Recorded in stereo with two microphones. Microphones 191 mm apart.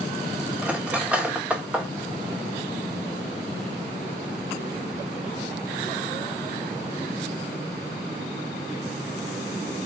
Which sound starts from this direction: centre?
Cutlery clinking, at 0.6 s.